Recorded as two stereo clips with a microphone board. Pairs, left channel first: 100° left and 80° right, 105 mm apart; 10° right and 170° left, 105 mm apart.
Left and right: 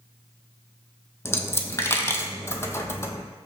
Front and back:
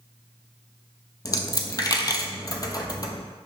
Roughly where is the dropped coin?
Ahead left.